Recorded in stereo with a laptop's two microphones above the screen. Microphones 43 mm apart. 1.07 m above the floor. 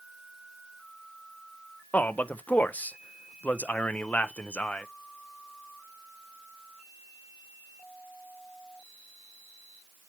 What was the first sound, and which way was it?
A man speaking, 45° left (ahead or behind).